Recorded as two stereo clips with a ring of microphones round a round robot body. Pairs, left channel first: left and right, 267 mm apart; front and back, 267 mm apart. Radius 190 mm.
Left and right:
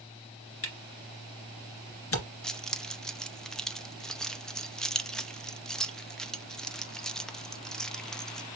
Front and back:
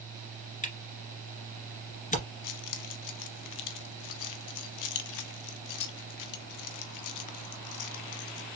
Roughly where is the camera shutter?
Ahead left.